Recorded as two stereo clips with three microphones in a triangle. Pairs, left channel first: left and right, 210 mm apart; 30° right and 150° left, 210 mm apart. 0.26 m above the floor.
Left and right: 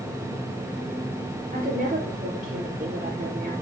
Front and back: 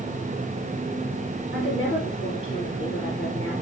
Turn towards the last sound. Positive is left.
turn(degrees=-40)